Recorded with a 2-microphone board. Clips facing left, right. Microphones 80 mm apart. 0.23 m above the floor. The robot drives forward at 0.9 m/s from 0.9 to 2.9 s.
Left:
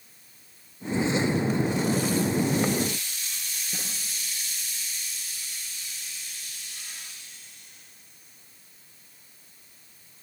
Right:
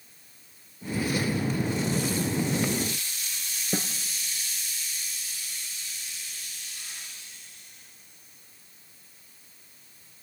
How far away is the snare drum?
About 2.5 m.